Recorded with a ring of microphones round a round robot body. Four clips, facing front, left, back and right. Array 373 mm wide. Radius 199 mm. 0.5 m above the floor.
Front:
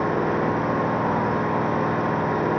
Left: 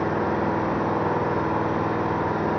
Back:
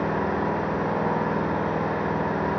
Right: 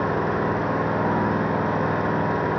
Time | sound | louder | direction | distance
0.0 | an engine running | even, front 3 dB | 55° right | 5 m